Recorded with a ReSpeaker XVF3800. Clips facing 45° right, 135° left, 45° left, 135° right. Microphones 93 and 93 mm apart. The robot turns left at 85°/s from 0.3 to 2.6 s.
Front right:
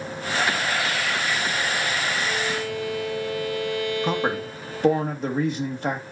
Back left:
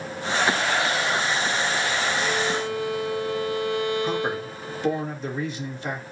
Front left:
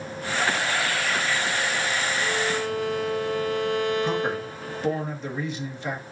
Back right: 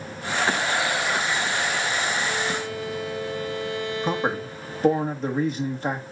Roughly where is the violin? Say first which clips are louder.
Back left 2 dB, front left 1 dB; left.